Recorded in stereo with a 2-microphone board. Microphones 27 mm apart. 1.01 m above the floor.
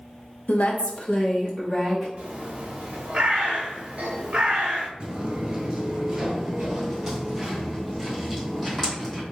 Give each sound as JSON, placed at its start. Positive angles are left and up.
{"t": 0.5, "sound": "a woman speaking", "side_deg": 65, "distance_m": 0.7}
{"t": 2.2, "sound": "a bird", "side_deg": -50, "distance_m": 1.0}
{"t": 5.0, "sound": "footsteps", "side_deg": -40, "distance_m": 1.2}